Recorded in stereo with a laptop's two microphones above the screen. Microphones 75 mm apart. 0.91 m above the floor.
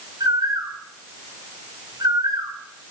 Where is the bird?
65° right (ahead or behind), 4 m.